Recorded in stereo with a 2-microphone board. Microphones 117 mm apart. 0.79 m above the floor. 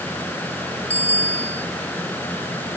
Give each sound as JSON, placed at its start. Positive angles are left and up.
{"t": 0.9, "sound": "a bicycle bell", "side_deg": 60}